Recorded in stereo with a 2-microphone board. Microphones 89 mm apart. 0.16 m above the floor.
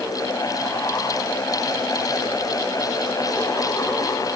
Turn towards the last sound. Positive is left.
No sound to turn to.